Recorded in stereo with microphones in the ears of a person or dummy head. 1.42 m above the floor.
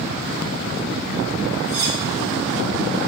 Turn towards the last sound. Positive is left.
turn(degrees=-55)  # may be behind; listen again after turning